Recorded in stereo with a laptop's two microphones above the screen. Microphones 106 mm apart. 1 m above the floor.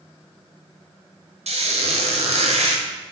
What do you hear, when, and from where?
1.5 s a squeak: 80° right, 0.6 m